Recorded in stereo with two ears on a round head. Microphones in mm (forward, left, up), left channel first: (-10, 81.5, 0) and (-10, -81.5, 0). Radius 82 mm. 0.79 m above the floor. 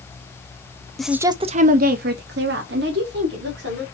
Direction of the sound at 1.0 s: 5° left (ahead or behind).